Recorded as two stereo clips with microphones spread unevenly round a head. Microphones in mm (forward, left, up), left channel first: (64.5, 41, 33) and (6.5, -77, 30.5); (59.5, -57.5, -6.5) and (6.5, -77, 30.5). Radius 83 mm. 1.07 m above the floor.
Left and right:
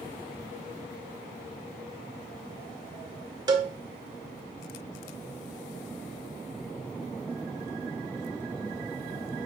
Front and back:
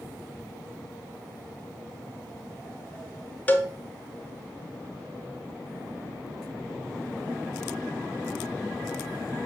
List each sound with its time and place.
3.5 s a cowbell: 60° right, 1.4 m